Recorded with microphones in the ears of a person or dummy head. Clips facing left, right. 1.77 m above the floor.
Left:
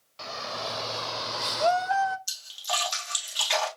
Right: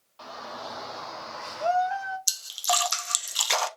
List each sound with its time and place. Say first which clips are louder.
0.2 s a shout: left 3 dB; 35° left (ahead or behind), 1.2 m; by 2.2 s 50° left (ahead or behind), 0.5 m
2.3 s a splash: right 6 dB; 65° right (ahead or behind), 0.7 m